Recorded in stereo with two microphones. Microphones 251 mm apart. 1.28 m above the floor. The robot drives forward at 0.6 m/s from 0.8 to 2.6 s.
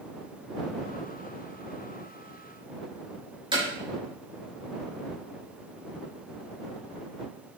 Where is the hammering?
20° right (ahead or behind), 4.5 m.